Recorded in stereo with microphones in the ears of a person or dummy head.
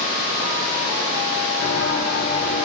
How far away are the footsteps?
About 3 m.